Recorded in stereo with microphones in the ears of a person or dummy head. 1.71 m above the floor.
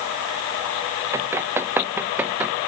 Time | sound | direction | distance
1.1 | running footsteps | 10° right (ahead or behind) | ?